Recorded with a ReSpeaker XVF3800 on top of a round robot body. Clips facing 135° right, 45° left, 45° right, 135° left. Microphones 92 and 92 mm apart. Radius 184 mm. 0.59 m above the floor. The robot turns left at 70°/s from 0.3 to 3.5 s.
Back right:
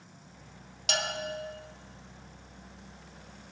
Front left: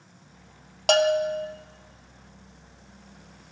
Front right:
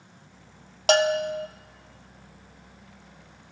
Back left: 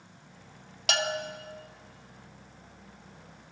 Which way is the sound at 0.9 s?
10° left.